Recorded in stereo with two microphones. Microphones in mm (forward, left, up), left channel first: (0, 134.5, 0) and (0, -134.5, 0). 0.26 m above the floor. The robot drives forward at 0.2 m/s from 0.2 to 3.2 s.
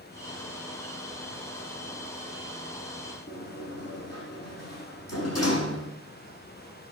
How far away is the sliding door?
About 6 m.